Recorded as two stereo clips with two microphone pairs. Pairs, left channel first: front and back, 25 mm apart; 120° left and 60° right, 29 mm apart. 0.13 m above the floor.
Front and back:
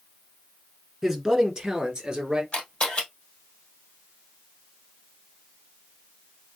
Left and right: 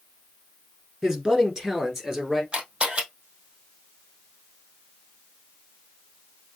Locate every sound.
1.0 s a man speaking: 100° right, 1.3 m; by 2.4 s 130° right, 2.0 m
2.5 s a camera shutter: 15° right, 2 m